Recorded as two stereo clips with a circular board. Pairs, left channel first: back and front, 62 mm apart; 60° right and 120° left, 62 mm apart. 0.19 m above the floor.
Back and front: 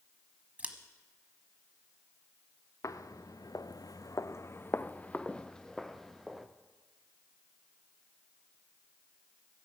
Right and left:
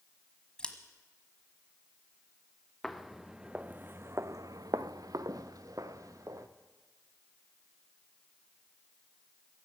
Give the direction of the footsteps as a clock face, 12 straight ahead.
5 o'clock.